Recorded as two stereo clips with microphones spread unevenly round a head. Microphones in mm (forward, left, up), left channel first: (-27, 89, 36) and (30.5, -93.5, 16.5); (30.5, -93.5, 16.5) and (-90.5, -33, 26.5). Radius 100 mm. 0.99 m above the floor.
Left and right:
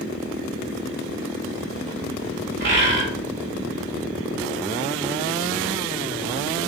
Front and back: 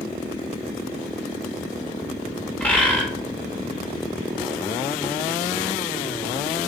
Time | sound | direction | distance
2.6 | a bird | 105° right | 2.5 m